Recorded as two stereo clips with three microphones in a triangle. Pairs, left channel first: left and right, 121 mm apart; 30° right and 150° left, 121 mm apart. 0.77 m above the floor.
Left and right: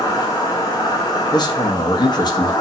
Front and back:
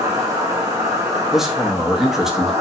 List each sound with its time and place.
0.0 s an insect: 115° left, 0.8 m
1.3 s a man speaking: 65° left, 0.5 m